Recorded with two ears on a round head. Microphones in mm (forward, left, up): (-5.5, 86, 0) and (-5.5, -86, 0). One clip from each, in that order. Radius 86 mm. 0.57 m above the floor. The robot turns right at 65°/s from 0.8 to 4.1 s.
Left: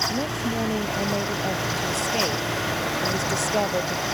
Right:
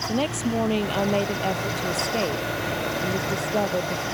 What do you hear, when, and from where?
0.1 s a woman speaking: 60° right; by 4.0 s 150° left